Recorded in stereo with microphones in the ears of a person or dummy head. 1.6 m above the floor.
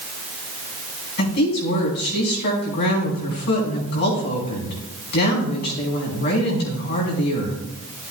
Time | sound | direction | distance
1.2 | a woman speaking | 55° left (ahead or behind) | 4 m